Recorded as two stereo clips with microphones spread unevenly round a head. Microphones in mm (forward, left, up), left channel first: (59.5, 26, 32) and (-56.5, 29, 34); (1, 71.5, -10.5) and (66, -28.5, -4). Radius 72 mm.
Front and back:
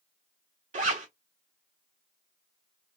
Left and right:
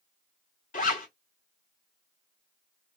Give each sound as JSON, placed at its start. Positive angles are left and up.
{"t": 0.7, "sound": "a zipper", "azimuth_deg": 160, "distance_m": 2.5}